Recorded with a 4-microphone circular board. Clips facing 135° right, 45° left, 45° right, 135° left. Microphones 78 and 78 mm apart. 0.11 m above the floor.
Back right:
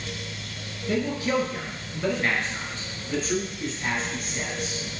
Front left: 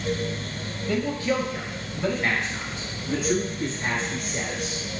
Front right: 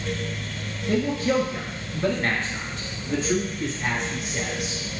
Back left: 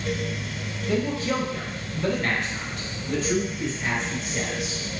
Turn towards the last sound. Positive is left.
turn(degrees=35)